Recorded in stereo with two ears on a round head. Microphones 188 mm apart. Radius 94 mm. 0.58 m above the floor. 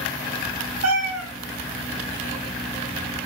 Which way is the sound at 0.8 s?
80° right.